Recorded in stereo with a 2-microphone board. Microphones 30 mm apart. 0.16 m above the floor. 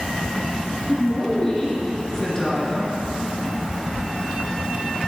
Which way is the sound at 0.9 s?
15° left (ahead or behind).